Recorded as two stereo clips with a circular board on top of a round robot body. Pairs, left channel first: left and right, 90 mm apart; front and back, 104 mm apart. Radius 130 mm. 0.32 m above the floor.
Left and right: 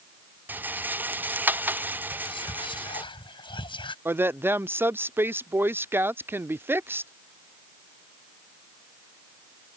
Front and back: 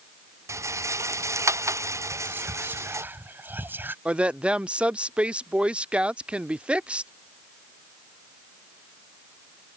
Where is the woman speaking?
115° right.